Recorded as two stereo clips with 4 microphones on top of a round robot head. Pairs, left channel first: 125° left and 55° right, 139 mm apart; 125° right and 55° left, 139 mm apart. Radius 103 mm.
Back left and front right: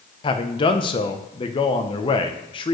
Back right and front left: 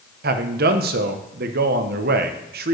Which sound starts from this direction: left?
A man speaking, at 0.2 s.